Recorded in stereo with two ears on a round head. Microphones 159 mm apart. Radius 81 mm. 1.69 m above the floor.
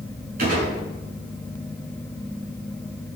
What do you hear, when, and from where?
0.4 s a gunshot: 55° right (ahead or behind), 7.5 m